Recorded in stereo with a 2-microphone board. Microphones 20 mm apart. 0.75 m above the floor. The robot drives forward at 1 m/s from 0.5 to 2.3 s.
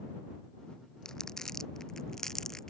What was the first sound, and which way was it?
Crumpling, 30° left (ahead or behind).